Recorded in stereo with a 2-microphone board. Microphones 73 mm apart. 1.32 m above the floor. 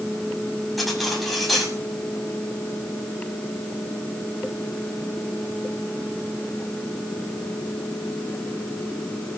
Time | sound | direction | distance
0.8 | cutlery clinking | centre (ahead or behind) | 5.5 m